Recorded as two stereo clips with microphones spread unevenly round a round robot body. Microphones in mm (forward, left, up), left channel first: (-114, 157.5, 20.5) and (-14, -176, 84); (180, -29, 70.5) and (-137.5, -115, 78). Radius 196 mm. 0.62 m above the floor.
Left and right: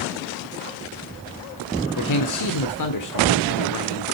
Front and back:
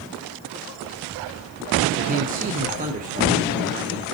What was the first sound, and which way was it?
A man speaking, 130° left.